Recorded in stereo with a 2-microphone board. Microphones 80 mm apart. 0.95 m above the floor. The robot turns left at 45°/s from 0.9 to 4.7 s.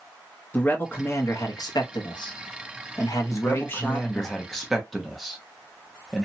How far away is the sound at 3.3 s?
About 0.6 m.